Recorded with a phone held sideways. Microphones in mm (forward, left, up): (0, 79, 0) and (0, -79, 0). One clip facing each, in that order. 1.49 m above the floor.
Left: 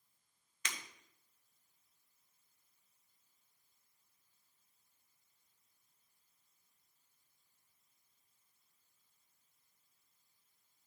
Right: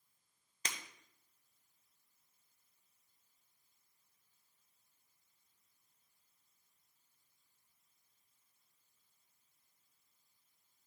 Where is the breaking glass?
35° right (ahead or behind), 1.2 m.